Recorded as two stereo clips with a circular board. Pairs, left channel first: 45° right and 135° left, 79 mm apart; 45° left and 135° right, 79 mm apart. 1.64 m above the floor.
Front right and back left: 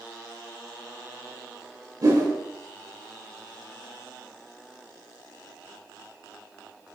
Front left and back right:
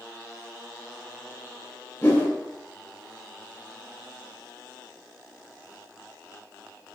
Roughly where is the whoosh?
Left.